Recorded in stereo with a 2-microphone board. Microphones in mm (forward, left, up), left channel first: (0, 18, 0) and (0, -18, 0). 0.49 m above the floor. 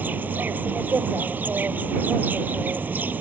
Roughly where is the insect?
Right.